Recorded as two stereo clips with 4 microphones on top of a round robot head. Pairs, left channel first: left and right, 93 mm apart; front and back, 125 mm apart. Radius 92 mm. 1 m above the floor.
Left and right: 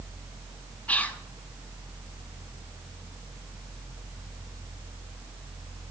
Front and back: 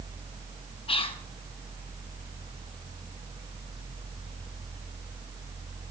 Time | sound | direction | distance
0.9 | whispering | 20° left | 0.8 m